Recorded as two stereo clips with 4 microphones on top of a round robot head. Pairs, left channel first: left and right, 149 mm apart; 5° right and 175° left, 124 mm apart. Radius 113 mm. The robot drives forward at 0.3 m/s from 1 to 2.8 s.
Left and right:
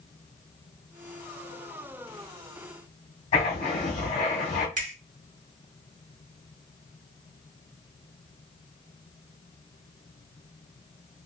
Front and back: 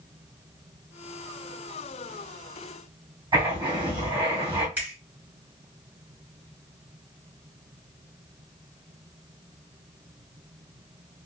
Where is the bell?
I don't hear a bell.